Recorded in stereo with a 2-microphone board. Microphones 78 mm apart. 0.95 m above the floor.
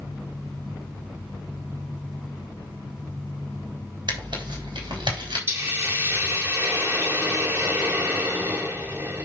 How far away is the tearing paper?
About 3.5 m.